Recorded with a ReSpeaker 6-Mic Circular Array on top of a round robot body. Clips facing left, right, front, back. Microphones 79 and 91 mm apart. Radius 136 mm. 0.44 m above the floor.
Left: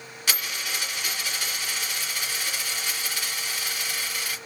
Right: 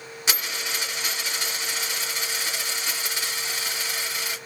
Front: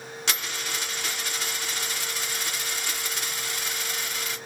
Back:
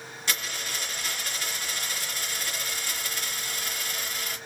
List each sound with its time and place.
0.3 s a dropped coin: 20° right, 2.5 m